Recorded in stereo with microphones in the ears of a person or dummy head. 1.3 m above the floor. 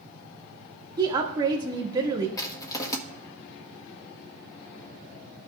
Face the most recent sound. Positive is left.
turn(degrees=20)  # may be behind; listen again after turning